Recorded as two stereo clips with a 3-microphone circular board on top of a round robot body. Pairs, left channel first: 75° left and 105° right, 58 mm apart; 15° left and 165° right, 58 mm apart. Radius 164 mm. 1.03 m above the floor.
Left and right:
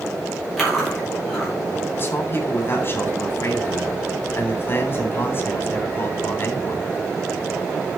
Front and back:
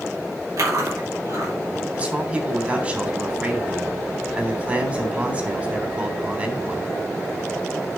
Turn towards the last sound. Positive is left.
turn(degrees=130)